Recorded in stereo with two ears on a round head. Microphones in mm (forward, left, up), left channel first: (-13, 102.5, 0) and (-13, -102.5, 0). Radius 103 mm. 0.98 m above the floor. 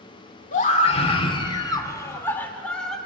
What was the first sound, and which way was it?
A scream, 35° left (ahead or behind).